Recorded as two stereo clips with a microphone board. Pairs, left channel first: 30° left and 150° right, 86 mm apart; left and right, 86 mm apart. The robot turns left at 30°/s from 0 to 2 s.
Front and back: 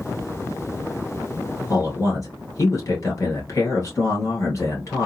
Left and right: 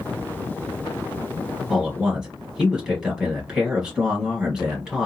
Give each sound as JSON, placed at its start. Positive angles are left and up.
{"t": 1.7, "sound": "a man speaking", "azimuth_deg": -5, "distance_m": 2.5}